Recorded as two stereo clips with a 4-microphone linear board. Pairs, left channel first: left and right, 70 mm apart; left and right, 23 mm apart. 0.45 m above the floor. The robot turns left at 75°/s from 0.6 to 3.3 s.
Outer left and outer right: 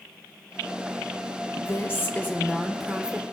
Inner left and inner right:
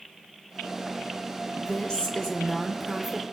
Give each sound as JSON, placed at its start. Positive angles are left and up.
{"t": 1.6, "sound": "a woman speaking", "azimuth_deg": 95, "distance_m": 1.3}